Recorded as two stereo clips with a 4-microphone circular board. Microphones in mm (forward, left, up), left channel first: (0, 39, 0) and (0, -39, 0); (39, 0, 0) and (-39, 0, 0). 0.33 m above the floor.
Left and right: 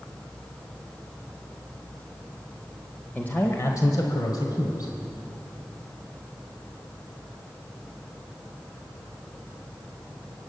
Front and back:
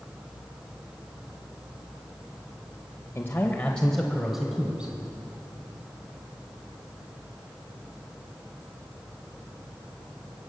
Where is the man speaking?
35° left, 1.0 m; by 4.9 s 105° left, 1.9 m.